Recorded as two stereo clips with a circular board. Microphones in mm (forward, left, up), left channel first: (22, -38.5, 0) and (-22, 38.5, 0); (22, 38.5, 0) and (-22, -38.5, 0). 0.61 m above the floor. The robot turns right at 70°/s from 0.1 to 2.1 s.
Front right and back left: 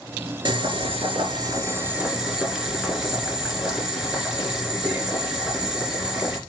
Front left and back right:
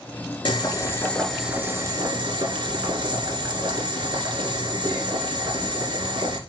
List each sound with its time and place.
0.5 s boiling: 90° left, 2 m; by 6.4 s 155° right, 2 m